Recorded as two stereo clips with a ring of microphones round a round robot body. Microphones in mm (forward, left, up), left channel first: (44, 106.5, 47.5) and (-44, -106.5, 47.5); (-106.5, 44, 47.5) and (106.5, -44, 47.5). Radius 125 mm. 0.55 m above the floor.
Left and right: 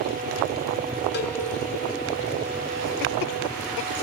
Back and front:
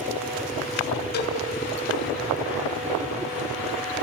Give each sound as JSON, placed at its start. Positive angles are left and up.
{"t": 1.1, "sound": "a cowbell", "azimuth_deg": 110, "distance_m": 2.5}